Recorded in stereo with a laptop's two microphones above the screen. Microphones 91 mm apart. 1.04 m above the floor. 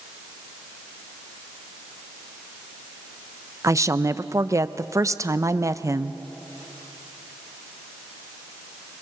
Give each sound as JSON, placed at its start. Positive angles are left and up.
{"t": 3.6, "sound": "a woman speaking", "side_deg": -40, "distance_m": 0.5}